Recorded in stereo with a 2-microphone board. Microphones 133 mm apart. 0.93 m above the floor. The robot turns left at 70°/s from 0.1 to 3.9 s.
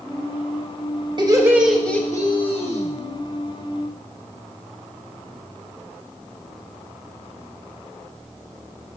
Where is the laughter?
140° right, 1.4 m; by 2.8 s 105° left, 1.4 m.